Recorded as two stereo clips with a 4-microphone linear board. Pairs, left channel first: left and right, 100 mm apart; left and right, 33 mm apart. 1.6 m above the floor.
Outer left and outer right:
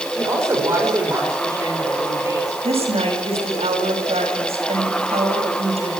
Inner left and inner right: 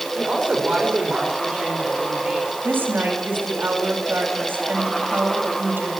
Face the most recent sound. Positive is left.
turn(degrees=-80)